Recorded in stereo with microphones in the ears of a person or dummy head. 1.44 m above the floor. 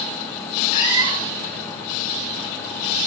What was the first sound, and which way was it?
A cat meowing, 30° left (ahead or behind).